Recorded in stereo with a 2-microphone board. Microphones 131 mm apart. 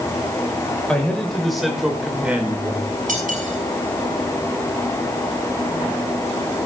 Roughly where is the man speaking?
Centre.